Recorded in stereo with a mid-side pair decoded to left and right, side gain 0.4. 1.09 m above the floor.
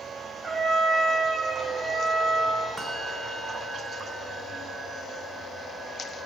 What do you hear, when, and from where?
0.4 s a trumpet: 45° right, 3.5 m
2.8 s a bell: 40° right, 0.7 m